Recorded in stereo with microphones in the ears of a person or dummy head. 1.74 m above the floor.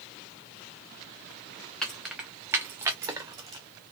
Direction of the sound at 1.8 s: 10° left (ahead or behind).